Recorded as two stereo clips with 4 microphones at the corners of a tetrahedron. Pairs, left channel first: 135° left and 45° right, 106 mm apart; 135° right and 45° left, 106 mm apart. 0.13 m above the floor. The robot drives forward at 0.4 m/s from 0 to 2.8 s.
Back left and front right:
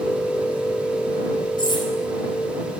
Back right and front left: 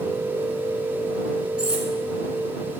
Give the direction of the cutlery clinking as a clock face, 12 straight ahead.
8 o'clock.